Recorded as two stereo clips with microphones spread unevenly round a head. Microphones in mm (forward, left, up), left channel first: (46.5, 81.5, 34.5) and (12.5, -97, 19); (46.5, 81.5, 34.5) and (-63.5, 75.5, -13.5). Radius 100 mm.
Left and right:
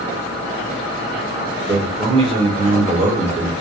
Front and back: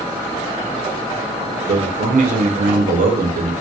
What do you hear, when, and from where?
1.7 s a man speaking: 165° right, 0.6 m